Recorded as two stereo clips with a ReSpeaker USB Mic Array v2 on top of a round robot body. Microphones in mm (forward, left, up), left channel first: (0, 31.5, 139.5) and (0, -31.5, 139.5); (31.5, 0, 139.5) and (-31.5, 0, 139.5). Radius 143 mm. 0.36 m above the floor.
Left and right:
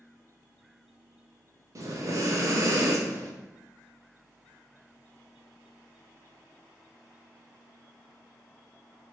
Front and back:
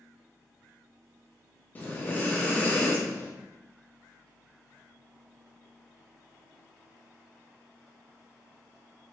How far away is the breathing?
About 0.8 m.